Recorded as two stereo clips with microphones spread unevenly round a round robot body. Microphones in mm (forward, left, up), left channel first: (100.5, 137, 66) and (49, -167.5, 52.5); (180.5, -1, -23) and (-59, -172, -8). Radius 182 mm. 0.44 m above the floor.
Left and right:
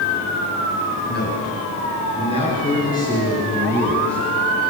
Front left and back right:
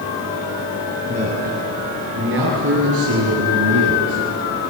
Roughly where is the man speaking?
Behind left.